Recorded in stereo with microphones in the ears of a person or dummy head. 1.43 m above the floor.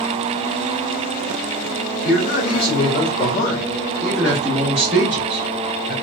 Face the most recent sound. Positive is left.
turn(degrees=-20)  # may be behind; listen again after turning